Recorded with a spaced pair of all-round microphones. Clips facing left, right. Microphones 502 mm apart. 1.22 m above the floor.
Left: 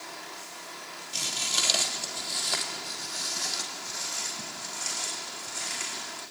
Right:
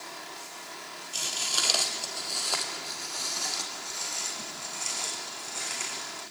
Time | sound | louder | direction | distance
1.1 | footsteps | left 1 dB | 40° left (ahead or behind) | 2 m